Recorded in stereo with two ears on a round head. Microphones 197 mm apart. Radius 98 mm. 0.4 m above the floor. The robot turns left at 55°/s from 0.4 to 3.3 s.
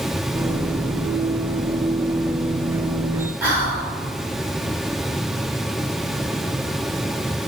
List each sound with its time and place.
3.4 s whispering: 10° right (ahead or behind), 1.2 m